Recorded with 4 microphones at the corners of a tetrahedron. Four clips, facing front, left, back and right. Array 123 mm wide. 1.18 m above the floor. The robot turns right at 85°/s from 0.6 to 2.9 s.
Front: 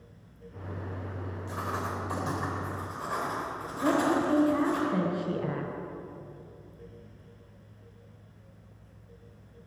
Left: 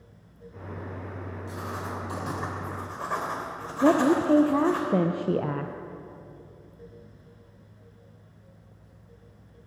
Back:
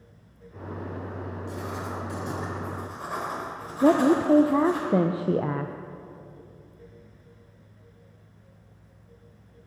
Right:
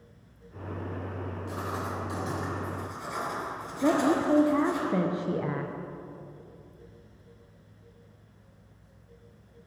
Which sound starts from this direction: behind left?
A woman speaking, at 3.8 s.